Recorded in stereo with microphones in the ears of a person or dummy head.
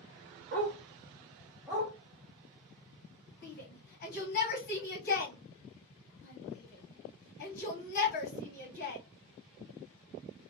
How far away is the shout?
About 1.3 m.